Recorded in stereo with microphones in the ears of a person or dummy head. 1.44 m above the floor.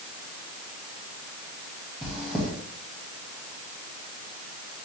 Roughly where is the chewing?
Centre.